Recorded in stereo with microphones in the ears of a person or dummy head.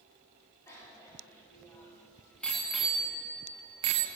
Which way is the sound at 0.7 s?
15° left (ahead or behind).